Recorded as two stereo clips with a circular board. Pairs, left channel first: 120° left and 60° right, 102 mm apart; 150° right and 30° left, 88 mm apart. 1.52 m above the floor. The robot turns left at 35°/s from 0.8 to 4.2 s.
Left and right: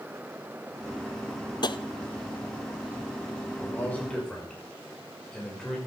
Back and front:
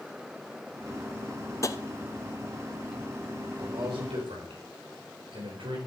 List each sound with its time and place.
1.6 s tapping: 160° left, 0.5 m; by 1.8 s 155° left, 0.5 m
3.5 s a man speaking: 60° left, 5 m; by 5.8 s 35° left, 5 m